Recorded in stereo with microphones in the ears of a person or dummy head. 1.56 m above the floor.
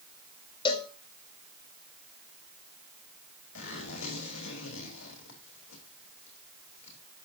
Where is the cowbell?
25° left (ahead or behind), 2.5 m.